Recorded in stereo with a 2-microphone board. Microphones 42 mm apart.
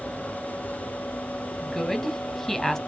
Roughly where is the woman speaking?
Centre.